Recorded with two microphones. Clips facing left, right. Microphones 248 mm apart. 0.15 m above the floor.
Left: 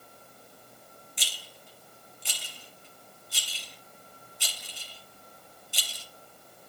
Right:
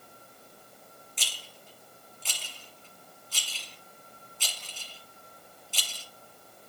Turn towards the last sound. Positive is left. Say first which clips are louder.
# right 1 dB
turn(degrees=15)  # may be behind; listen again after turning